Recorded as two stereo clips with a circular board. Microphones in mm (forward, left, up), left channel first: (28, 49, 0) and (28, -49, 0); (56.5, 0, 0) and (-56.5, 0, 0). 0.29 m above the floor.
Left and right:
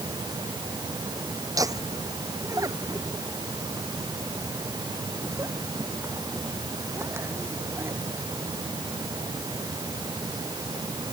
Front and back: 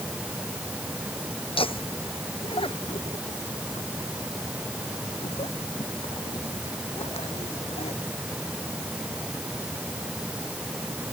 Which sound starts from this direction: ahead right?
Laughter, at 1.6 s.